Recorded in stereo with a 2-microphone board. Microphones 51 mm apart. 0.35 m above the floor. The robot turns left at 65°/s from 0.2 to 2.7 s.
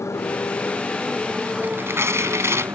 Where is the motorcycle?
75° left; by 2.8 s 90° right.